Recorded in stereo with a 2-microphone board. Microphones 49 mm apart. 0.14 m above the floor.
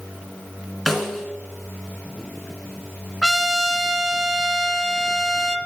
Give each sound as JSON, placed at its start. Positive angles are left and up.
{"t": 0.9, "sound": "a snare drum", "side_deg": 5, "distance_m": 1.6}
{"t": 3.2, "sound": "a trumpet", "side_deg": 5, "distance_m": 0.5}